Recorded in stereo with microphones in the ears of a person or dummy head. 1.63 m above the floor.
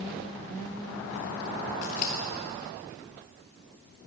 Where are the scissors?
35° left (ahead or behind), 0.9 m.